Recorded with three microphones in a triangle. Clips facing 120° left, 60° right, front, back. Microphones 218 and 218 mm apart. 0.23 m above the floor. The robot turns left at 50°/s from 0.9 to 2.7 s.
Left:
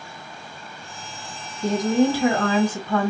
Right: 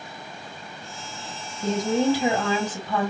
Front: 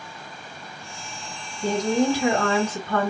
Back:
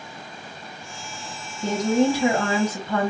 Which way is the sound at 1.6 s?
90° right.